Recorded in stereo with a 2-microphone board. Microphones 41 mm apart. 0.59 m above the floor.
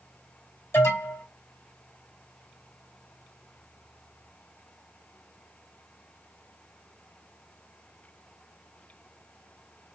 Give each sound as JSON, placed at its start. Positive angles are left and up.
{"t": 0.7, "sound": "an alarm", "side_deg": 75, "distance_m": 3.0}